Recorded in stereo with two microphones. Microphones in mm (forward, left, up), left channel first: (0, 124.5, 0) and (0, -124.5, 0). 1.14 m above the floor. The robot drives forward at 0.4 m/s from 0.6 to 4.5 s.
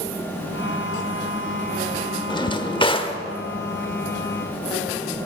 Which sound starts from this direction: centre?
A drawer, at 2.3 s.